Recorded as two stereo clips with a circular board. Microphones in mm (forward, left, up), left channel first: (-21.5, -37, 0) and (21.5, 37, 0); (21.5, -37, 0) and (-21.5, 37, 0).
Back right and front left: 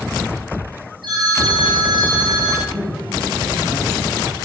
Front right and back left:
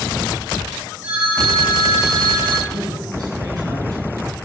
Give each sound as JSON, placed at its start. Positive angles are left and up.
{"t": 1.0, "sound": "a phone ringing", "azimuth_deg": 45, "distance_m": 4.5}
{"t": 2.7, "sound": "a man speaking", "azimuth_deg": 90, "distance_m": 3.0}